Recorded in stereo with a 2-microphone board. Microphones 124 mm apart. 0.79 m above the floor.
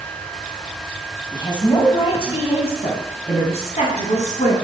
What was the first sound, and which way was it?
A woman speaking, 35° left (ahead or behind).